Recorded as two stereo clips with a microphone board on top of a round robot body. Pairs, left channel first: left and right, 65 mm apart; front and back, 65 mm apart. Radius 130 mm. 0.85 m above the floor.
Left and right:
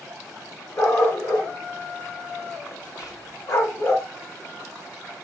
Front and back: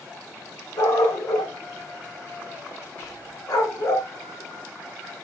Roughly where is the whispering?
Ahead left.